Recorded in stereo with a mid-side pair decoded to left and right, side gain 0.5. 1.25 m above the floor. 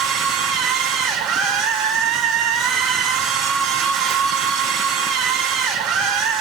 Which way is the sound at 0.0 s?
70° right.